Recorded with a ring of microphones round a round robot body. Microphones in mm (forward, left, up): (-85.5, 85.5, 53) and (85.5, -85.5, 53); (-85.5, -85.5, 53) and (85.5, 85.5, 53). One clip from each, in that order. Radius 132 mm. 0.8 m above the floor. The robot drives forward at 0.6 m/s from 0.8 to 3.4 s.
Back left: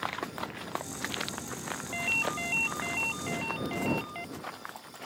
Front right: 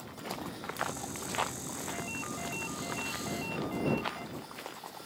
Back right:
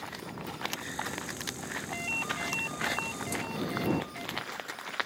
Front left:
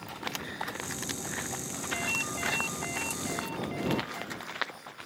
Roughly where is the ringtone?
Behind left.